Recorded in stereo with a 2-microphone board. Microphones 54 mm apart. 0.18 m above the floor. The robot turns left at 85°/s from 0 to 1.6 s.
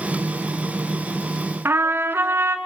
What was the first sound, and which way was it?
A trumpet, 45° right (ahead or behind).